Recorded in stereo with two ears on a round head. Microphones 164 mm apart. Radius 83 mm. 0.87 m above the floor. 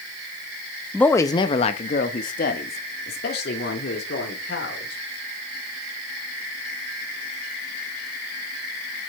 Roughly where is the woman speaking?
Centre.